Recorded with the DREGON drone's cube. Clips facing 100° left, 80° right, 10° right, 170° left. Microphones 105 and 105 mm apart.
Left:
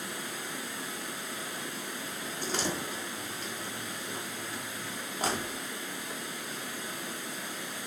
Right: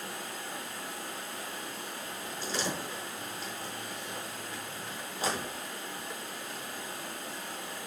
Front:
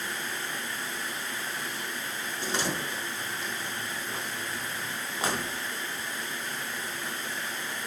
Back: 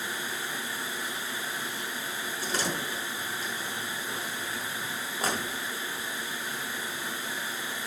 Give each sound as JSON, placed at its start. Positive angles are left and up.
{"t": 0.0, "sound": "running water", "azimuth_deg": 85, "distance_m": 3.5}
{"t": 2.4, "sound": "a door slam", "azimuth_deg": 50, "distance_m": 5.5}